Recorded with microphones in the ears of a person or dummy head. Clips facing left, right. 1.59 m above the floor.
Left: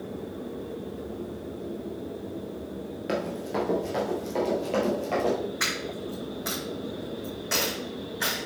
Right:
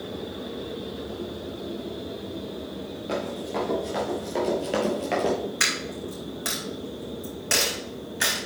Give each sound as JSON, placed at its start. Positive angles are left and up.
{"t": 3.1, "sound": "running footsteps", "side_deg": 20, "distance_m": 1.7}
{"t": 5.6, "sound": "a dropped coin", "side_deg": -45, "distance_m": 4.0}